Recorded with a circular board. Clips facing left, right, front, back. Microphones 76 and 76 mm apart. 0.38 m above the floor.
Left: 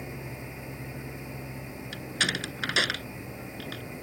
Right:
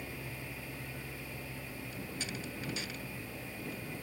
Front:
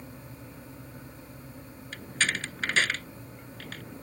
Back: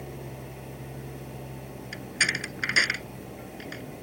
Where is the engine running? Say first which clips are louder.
Left 5 dB, back 6 dB; 160° left.